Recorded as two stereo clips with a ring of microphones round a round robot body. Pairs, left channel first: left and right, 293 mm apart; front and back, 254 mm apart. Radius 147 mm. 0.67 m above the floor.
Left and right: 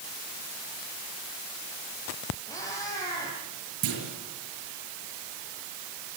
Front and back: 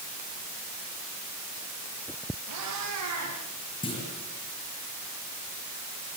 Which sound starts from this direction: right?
A clunk, at 3.8 s.